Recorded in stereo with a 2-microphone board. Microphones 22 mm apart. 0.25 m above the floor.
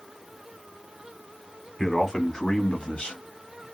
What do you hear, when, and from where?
1.8 s a man speaking: 20° left (ahead or behind), 1.7 m; by 3.6 s 50° left (ahead or behind), 1.5 m